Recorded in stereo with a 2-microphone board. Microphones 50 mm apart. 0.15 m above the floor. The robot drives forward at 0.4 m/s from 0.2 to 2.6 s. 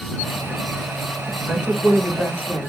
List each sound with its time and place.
1.5 s a woman speaking: 25° right (ahead or behind), 3.5 m